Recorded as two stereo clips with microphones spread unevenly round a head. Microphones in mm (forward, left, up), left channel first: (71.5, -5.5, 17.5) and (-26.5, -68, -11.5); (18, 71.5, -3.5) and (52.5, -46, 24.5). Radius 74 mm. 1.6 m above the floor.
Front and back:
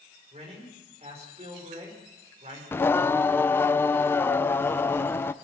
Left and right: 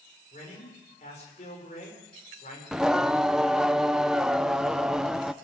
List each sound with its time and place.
0.3 s a man speaking: 155° left, 6.5 m
2.7 s singing: 10° right, 0.6 m